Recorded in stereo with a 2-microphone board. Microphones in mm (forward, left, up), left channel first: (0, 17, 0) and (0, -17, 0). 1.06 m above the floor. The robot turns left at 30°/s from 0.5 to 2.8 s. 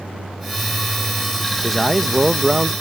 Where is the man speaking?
10° left; by 2.7 s 20° right.